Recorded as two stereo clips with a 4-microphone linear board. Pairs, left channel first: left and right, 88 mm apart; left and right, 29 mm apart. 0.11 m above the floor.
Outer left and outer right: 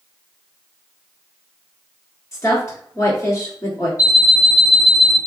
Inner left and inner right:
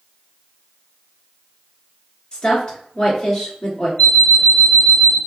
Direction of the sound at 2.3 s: 35° left (ahead or behind).